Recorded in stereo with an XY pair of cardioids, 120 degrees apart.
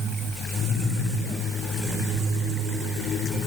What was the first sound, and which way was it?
Only background noise.